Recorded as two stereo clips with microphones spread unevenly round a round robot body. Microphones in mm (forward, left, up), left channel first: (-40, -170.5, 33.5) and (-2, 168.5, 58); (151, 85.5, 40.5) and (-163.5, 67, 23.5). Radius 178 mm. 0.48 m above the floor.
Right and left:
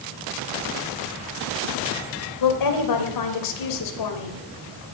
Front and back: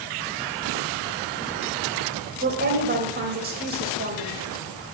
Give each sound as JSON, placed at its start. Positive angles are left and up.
{"t": 2.4, "sound": "a woman speaking", "azimuth_deg": -115, "distance_m": 2.0}